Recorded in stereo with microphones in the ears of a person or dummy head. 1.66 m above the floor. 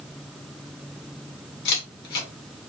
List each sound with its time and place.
1.6 s a camera shutter: 50° left (ahead or behind), 2.0 m